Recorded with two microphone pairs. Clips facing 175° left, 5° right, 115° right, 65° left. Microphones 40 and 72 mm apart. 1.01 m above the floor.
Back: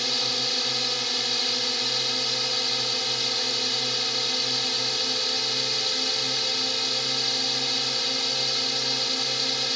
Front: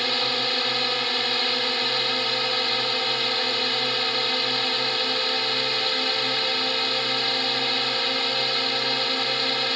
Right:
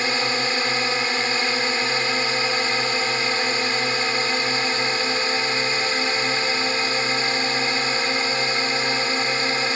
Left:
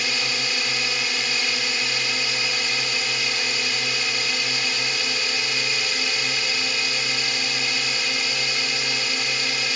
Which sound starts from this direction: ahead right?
A drone, at 0.0 s.